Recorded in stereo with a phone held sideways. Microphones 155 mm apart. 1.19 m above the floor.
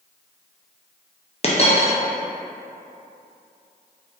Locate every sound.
1.4 s a dropped coin: 40° left (ahead or behind), 0.5 m